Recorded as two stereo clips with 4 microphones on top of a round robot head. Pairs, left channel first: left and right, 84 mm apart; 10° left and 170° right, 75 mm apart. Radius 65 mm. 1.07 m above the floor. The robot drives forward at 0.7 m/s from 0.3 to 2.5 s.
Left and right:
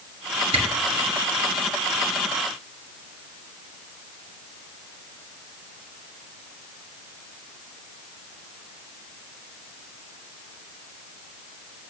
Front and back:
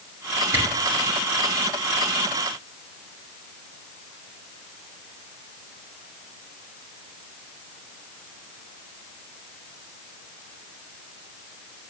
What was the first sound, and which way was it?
A camera shutter, 110° right.